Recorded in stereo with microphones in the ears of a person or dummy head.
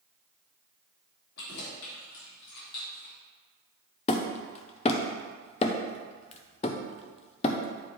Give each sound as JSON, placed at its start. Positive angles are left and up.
{"t": 1.4, "sound": "keys jangling", "side_deg": 70, "distance_m": 2.5}
{"t": 4.1, "sound": "hammering", "side_deg": 35, "distance_m": 0.6}